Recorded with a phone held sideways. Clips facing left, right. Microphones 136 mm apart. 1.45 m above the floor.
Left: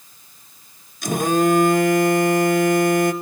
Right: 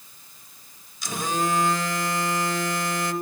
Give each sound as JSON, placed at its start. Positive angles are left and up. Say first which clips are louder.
{"t": 1.0, "sound": "a phone buzzing", "louder": "left 9 dB", "side_deg": 55, "distance_m": 1.1}